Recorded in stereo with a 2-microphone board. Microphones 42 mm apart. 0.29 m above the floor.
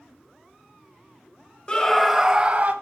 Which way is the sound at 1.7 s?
25° left (ahead or behind).